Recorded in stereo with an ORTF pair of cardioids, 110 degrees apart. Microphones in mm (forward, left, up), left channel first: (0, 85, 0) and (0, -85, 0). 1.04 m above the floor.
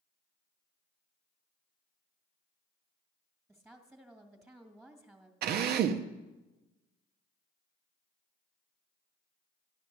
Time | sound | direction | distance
3.5 | a woman speaking | 10° right | 1.9 m
5.4 | a drill | 70° right | 0.9 m